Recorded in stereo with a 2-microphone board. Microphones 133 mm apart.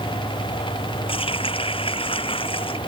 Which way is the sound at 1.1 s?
40° left (ahead or behind).